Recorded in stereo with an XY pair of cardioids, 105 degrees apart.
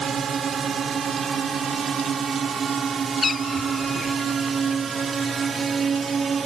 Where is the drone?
50° right; by 6.5 s 40° right.